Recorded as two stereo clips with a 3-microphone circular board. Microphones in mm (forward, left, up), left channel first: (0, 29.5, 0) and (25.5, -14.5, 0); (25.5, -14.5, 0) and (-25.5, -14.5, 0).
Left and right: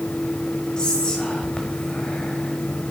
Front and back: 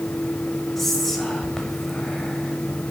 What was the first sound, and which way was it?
Whispering, 75° left.